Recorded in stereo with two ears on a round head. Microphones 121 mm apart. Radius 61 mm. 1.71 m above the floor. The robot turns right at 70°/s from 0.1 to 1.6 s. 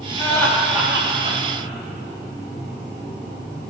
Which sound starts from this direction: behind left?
Laughter, at 0.2 s.